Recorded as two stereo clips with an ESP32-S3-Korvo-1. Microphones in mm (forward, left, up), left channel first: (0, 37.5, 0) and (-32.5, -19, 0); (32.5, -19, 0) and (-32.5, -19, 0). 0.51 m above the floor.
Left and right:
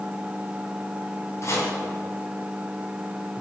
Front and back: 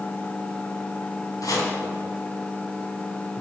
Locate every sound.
1.4 s chopping: 20° left, 3.5 m